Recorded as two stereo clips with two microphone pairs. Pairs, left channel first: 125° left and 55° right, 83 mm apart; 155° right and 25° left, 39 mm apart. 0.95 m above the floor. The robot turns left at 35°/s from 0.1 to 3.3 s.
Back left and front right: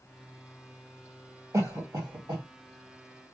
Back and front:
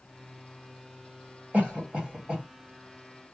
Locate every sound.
1.5 s a cough: 10° right, 1.8 m; by 2.5 s 45° right, 1.8 m